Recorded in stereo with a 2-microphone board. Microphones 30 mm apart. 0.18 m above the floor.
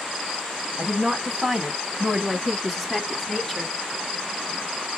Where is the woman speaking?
10° right (ahead or behind), 1.1 m; by 3.7 s 15° left (ahead or behind), 1.4 m.